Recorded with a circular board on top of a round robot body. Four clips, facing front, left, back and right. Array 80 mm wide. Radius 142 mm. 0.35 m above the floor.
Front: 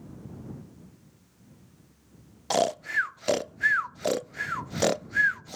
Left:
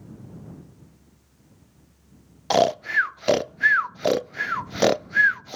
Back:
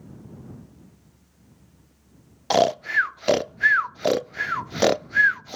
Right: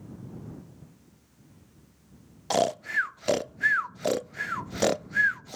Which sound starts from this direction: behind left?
Snoring, at 2.5 s.